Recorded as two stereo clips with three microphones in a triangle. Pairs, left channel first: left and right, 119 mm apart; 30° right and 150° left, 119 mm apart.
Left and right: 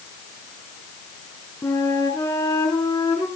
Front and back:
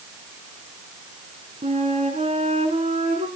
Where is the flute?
150° left, 3 m.